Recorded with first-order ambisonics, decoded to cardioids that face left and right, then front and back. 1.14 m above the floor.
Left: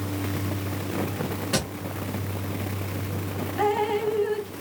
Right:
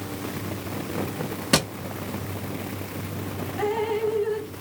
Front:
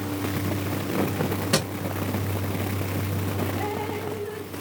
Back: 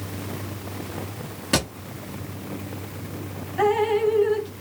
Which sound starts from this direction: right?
A thud, at 1.5 s.